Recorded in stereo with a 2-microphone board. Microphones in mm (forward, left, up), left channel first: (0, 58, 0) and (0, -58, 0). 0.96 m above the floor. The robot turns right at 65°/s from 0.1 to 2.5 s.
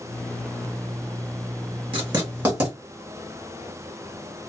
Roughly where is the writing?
Right.